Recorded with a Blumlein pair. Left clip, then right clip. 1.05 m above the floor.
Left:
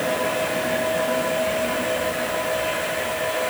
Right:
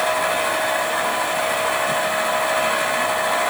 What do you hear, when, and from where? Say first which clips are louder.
0.0 s a machine running: right 3 dB; 50° right, 6.5 m